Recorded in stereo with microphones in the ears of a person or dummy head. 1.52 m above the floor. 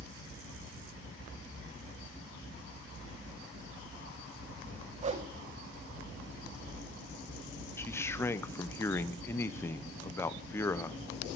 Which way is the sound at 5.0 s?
40° right (ahead or behind).